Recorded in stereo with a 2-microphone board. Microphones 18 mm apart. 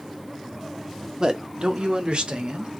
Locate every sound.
1.2 s a man speaking: 30° right (ahead or behind), 0.9 m; by 2.7 s 60° right (ahead or behind), 1.6 m